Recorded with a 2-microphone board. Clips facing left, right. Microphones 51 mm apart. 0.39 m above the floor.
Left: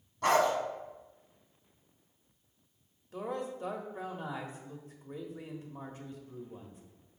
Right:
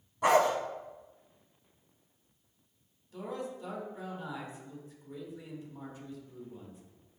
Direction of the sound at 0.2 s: 10° right (ahead or behind).